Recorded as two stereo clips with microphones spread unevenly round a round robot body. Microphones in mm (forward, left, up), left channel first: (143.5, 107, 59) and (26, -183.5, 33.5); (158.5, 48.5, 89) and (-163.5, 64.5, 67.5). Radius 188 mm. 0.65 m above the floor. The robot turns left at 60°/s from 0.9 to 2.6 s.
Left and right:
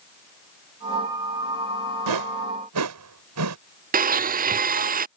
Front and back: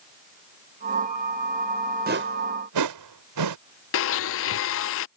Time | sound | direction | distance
2.1 | a whoosh | 120° right | ?
3.9 | a blender | 50° right | ?